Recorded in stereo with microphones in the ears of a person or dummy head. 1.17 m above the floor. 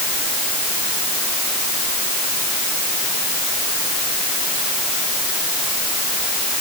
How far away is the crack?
No crack in this recording.